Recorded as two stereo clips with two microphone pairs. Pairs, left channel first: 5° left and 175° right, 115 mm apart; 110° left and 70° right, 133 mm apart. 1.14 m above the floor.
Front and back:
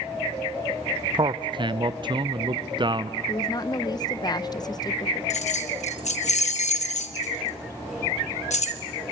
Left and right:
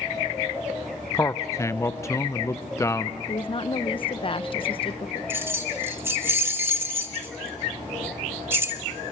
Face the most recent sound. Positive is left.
turn(degrees=5)